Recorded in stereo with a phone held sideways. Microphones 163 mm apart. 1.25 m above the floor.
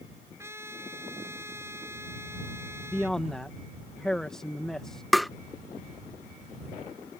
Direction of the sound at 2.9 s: 5° left (ahead or behind).